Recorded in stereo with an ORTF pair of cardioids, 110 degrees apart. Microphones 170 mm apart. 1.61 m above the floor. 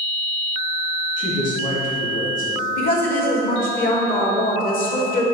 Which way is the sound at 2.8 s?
60° left.